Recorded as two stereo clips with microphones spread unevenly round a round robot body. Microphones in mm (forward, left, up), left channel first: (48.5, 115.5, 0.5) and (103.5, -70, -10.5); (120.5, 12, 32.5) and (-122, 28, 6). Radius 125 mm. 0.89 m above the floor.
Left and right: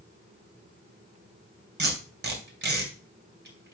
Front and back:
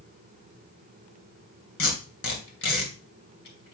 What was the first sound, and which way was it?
Tape being pulled, 40° right.